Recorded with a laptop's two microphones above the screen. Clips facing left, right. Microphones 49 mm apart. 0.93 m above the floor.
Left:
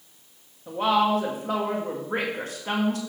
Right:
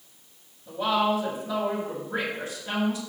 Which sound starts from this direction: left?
A woman speaking, at 0.7 s.